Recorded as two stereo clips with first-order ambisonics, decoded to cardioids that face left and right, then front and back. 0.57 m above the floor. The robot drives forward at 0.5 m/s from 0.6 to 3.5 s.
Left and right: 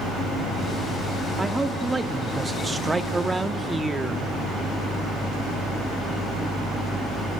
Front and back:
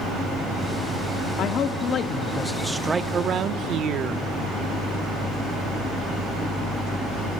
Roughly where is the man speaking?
Ahead.